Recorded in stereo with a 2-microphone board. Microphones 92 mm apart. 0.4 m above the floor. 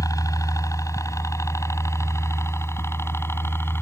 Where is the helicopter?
40° left (ahead or behind); by 3.8 s 25° left (ahead or behind).